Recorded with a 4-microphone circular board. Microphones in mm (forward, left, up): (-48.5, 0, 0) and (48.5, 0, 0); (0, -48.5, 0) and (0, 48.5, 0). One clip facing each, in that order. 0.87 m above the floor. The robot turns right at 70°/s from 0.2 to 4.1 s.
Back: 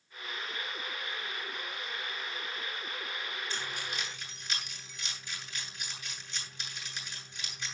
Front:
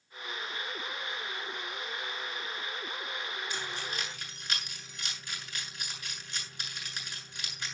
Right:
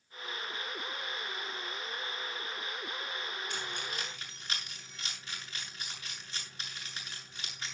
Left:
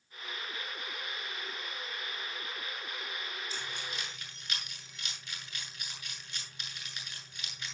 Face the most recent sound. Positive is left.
turn(degrees=-35)